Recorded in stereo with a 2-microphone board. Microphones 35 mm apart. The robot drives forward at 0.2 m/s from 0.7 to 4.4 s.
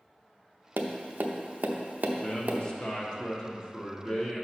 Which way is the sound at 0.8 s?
80° right.